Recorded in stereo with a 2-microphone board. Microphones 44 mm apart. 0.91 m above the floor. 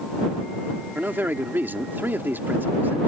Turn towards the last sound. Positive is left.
turn(degrees=-50)  # may be behind; listen again after turning